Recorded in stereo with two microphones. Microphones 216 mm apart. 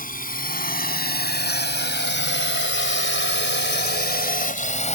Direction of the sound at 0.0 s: 40° left (ahead or behind).